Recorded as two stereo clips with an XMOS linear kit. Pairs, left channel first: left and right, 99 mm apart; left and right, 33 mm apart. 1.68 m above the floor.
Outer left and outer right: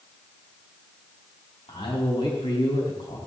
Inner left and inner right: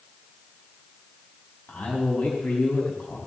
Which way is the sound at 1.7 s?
70° left (ahead or behind).